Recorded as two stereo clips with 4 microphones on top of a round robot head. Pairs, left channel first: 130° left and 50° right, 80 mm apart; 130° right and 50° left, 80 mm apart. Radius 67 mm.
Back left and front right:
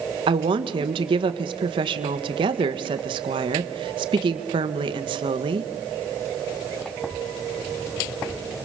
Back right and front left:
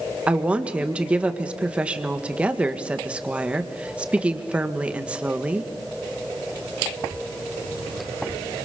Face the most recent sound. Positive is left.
turn(degrees=-25)